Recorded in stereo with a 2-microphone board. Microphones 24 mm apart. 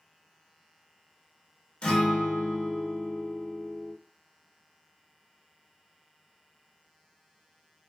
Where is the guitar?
40° left (ahead or behind), 1.3 m.